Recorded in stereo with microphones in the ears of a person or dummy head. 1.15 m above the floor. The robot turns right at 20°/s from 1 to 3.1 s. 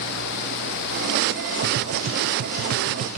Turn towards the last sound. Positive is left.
turn(degrees=-40)  # may be behind; listen again after turning